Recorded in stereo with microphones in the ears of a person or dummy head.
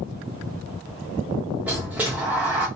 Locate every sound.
1.7 s a sliding door: 10° right (ahead or behind), 0.7 m